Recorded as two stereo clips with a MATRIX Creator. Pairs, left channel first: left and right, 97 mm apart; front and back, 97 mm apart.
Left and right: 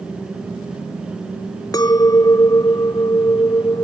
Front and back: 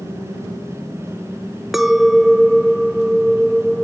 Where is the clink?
95° left.